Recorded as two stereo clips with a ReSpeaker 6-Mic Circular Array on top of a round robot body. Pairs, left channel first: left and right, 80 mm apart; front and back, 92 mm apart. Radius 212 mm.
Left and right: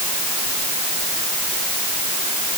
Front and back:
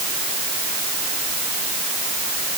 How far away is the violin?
I don't hear a violin.